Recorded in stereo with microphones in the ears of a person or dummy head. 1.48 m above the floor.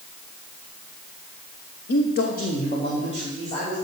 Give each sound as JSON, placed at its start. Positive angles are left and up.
{"t": 1.9, "sound": "a man speaking", "side_deg": 65, "distance_m": 0.8}